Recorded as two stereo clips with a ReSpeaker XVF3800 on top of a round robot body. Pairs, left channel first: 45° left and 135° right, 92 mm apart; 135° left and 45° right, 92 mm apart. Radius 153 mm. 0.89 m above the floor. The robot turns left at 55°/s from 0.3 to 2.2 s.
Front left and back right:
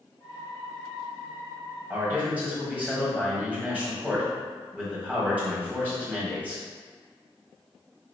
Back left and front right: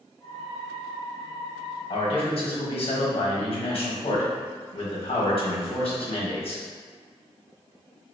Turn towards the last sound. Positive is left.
turn(degrees=150)